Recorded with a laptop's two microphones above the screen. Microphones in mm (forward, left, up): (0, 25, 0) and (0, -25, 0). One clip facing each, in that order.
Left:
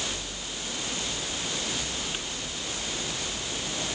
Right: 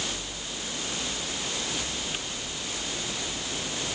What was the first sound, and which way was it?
Only background noise.